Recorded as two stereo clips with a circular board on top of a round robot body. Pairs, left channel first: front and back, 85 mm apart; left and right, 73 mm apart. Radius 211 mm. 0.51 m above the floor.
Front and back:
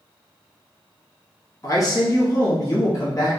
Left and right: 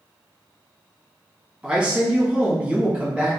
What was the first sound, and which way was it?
A man speaking, 20° right.